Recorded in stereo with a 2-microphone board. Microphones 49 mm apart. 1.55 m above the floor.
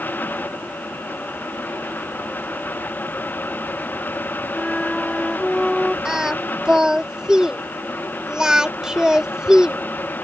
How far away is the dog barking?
No dog barking in this recording.